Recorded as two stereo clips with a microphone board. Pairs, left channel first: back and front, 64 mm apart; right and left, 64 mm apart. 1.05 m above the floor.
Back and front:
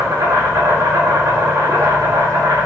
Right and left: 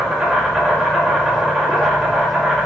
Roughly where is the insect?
Ahead.